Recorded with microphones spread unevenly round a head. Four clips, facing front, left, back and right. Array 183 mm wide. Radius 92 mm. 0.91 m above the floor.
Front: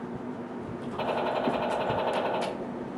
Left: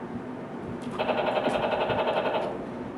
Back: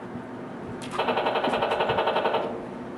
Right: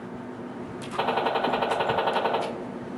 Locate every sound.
1.0 s a gunshot: 130° right, 2 m